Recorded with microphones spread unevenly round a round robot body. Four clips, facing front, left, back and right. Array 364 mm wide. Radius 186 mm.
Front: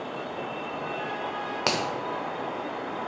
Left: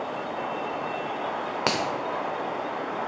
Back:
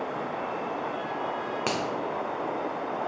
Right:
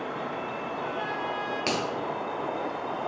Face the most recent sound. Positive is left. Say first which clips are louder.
# left 3 dB, front 3 dB
turn(degrees=90)